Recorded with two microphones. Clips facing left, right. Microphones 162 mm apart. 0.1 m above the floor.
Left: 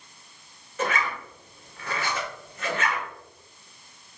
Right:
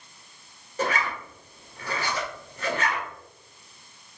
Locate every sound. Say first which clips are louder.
0.8 s a zipper: right 1 dB; 35° right (ahead or behind), 1.7 m